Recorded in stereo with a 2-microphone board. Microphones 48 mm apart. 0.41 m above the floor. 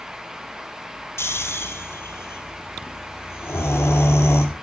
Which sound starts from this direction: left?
Snoring, at 1.2 s.